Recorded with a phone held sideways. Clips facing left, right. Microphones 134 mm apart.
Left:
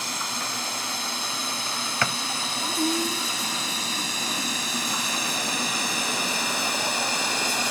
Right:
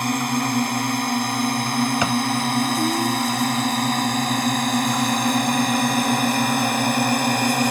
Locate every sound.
0.0 s a drone: 60° right (ahead or behind)
2.0 s a drawer: 20° right (ahead or behind)